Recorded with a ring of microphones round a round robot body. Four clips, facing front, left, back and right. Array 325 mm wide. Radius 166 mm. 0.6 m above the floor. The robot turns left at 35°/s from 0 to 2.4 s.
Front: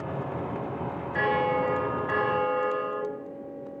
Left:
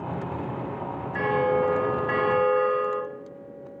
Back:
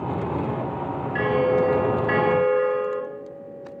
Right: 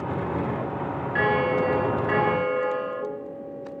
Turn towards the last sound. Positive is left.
turn(degrees=170)